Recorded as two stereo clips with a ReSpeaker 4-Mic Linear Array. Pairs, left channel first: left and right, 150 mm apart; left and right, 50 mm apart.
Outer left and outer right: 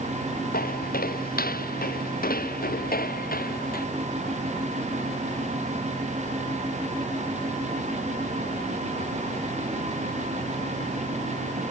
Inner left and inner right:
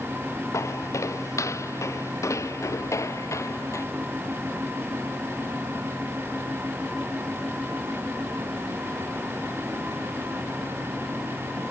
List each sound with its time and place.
0.5 s footsteps: 80° left